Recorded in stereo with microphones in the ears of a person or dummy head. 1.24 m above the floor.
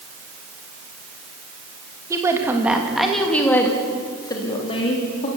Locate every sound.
2.1 s a woman speaking: 15° right (ahead or behind), 2 m; by 5.3 s 35° left (ahead or behind), 3 m